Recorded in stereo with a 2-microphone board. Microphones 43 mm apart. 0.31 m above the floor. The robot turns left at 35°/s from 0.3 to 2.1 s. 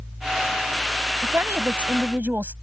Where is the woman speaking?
85° right; by 2.5 s 115° right.